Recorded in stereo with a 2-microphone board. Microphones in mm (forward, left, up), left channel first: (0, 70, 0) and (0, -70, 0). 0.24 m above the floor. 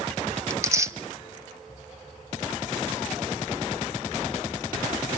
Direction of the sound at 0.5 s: 20° right (ahead or behind).